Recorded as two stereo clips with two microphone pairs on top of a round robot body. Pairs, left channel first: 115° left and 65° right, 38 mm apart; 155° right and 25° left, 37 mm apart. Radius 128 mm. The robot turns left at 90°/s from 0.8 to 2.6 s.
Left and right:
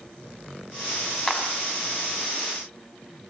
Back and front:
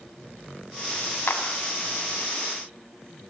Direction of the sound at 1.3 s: 170° right.